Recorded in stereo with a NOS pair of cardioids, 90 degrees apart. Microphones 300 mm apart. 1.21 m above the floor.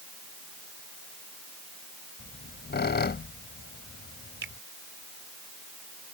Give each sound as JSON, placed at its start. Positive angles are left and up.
{"t": 2.2, "sound": "a squeak", "azimuth_deg": 35}
{"t": 4.4, "sound": "a finger snap", "azimuth_deg": -40}